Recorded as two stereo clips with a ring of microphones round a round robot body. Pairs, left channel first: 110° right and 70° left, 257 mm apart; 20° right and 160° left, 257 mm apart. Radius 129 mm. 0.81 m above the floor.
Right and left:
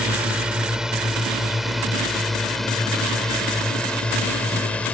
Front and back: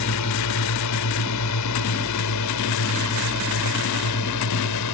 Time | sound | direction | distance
0.0 | a drone | 20° right | ?